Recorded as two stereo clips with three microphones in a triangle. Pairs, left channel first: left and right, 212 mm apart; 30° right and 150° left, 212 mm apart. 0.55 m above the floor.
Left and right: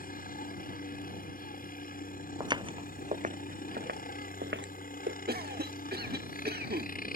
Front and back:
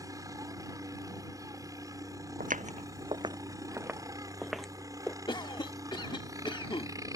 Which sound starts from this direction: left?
A helicopter, at 0.0 s.